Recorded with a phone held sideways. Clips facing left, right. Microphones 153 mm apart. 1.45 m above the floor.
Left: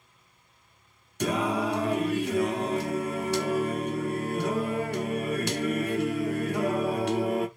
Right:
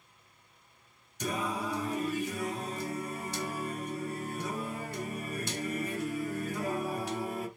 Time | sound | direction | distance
1.2 | singing | 70° left (ahead or behind) | 0.6 m